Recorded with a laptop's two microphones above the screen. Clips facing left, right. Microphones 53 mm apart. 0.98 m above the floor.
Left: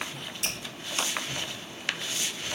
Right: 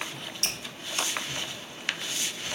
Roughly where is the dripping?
Centre.